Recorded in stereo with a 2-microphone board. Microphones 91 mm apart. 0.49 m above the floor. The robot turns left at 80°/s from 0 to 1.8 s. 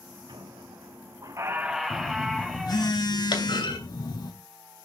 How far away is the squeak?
About 1.3 m.